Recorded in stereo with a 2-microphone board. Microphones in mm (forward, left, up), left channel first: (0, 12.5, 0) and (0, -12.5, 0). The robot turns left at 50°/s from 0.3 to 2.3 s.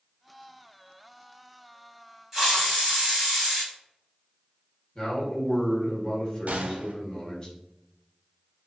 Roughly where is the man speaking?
Left.